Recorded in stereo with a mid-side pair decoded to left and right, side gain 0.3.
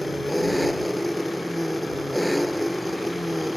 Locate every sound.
0.0 s an engine running: 5° left